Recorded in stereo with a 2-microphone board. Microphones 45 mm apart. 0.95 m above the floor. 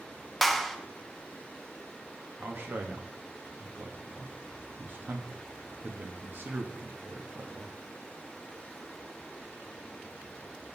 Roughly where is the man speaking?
Right.